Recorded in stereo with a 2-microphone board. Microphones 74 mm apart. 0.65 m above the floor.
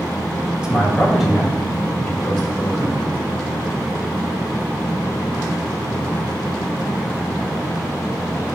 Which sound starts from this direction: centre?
A man speaking, at 0.6 s.